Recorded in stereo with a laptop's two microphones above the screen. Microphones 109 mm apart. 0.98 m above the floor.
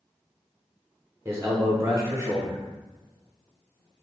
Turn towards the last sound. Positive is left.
turn(degrees=-25)  # may be behind; listen again after turning